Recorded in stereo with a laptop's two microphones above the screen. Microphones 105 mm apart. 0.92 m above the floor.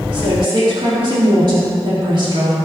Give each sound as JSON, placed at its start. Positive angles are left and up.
{"t": 0.1, "sound": "a woman speaking", "side_deg": -50, "distance_m": 1.9}